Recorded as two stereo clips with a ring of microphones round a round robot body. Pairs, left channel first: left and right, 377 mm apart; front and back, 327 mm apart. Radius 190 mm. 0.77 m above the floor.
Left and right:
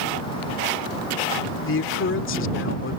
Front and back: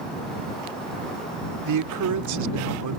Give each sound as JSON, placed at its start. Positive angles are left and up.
{"t": 1.7, "sound": "a man speaking", "azimuth_deg": 150}